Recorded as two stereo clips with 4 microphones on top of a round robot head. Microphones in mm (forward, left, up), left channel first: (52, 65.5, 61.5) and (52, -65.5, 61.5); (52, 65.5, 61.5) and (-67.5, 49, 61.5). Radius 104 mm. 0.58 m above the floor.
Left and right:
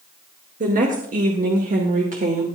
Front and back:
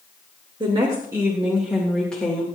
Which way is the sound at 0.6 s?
115° right.